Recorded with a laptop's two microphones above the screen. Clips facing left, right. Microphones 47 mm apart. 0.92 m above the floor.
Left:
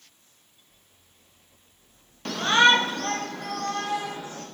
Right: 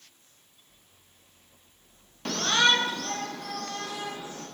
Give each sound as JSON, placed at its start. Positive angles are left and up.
{"t": 2.2, "sound": "a shout", "side_deg": 0, "distance_m": 0.6}